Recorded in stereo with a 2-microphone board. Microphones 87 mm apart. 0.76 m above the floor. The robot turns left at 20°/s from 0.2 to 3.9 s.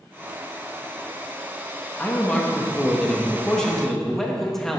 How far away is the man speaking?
About 1.0 m.